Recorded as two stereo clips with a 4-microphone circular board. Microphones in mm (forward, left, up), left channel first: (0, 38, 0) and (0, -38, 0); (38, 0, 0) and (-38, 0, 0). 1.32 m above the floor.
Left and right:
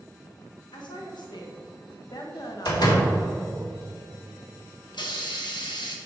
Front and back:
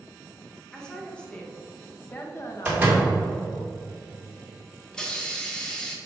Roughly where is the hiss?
Left.